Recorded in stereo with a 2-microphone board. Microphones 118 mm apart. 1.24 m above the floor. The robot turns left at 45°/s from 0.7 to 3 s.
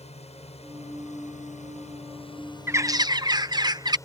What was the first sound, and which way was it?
A drone, 60° left (ahead or behind).